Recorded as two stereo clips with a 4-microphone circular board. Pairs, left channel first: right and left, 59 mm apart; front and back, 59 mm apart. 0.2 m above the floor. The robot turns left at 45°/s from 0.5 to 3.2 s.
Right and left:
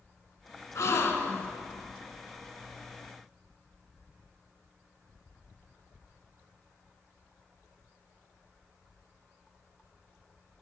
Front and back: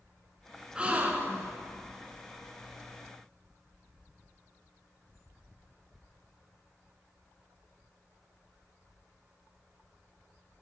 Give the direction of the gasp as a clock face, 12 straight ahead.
4 o'clock.